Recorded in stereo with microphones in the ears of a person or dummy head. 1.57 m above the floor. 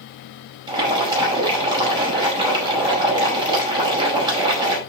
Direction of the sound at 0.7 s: 25° right (ahead or behind).